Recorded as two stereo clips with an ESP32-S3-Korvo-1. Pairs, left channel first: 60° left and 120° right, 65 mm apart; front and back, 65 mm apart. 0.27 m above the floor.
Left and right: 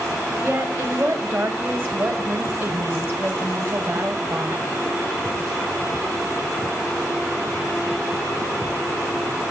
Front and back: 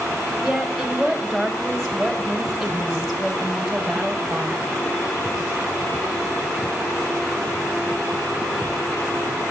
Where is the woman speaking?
95° right, 1.3 m.